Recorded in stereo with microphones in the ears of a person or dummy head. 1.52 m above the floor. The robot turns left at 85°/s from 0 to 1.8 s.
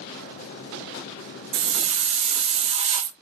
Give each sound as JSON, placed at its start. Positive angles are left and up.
{"t": 1.5, "sound": "a hiss", "side_deg": -55, "distance_m": 0.7}